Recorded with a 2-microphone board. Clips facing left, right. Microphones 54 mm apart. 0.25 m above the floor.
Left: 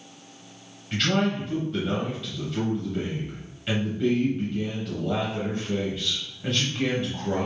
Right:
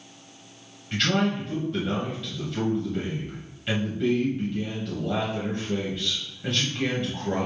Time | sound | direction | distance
0.9 | a man speaking | centre (ahead or behind) | 1.0 m